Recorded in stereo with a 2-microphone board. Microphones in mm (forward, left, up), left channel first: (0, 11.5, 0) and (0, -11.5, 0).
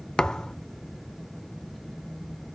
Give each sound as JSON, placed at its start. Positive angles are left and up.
{"t": 0.2, "sound": "a thud", "side_deg": 45, "distance_m": 0.5}